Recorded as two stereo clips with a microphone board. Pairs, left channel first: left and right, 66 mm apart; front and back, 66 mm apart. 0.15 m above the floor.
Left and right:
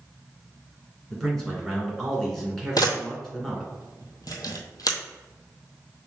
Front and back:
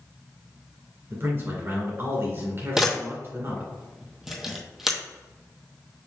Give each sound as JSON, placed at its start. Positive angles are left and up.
{"t": 1.1, "sound": "a man speaking", "azimuth_deg": 175, "distance_m": 2.0}
{"t": 2.8, "sound": "a camera shutter", "azimuth_deg": 100, "distance_m": 1.0}